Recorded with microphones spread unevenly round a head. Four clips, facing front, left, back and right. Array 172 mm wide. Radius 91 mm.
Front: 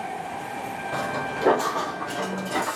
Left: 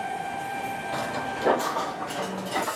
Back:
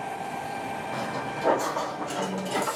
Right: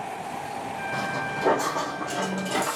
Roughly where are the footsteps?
Ahead.